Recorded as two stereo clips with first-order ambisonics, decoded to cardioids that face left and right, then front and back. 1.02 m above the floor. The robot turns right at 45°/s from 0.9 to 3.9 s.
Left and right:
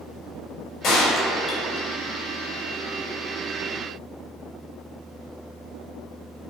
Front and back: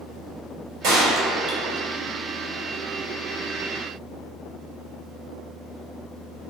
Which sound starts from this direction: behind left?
A gunshot, at 0.8 s.